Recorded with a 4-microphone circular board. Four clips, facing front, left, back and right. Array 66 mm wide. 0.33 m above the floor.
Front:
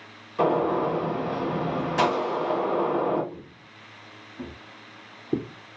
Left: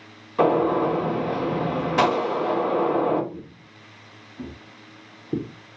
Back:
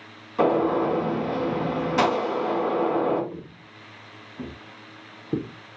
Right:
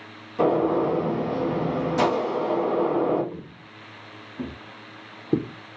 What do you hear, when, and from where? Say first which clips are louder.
0.4 s a gunshot: left 1 dB, back 2 dB; 115° left, 2.5 m
3.3 s footsteps: right 1 dB, back 3 dB; 125° right, 1.7 m; by 5.5 s 80° right, 1.1 m